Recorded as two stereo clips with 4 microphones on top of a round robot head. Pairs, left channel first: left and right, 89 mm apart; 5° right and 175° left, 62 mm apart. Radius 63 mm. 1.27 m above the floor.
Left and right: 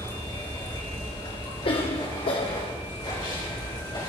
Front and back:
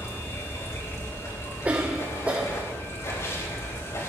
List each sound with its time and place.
0.0 s running water: 35° left, 4 m
1.6 s a cough: 110° left, 1.0 m